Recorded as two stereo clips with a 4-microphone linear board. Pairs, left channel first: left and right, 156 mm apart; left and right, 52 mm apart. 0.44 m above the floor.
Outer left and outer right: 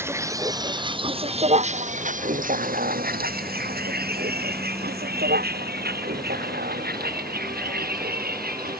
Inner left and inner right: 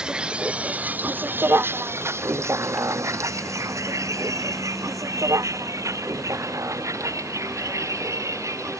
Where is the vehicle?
15° right (ahead or behind); by 8.8 s 75° right (ahead or behind).